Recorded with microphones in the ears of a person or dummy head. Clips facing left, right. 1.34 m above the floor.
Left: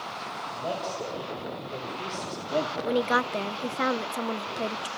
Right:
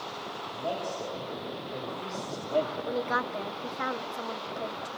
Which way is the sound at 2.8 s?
45° left (ahead or behind).